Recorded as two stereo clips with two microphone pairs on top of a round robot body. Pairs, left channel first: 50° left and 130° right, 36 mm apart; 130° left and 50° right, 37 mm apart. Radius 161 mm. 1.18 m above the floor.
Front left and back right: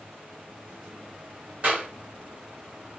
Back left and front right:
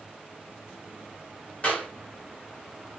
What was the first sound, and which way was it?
A clap, 175° right.